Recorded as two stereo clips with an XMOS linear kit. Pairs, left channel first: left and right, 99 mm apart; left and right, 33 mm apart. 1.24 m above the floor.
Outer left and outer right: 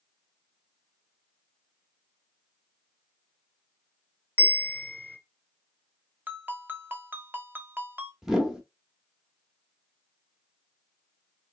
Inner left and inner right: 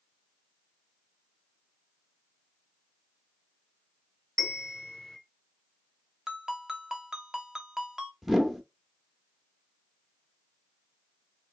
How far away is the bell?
About 1.3 m.